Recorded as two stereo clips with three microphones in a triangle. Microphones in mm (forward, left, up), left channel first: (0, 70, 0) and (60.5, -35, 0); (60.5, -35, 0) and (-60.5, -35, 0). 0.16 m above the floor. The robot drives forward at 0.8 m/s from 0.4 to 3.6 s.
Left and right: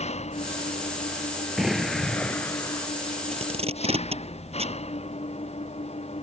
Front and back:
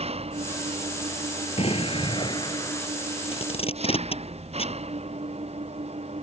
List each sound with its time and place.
0.0 s an engine running: 145° left; by 6.2 s 150° left
1.6 s an explosion: 30° left; by 2.9 s 65° left
3.3 s tape being pulled: 30° right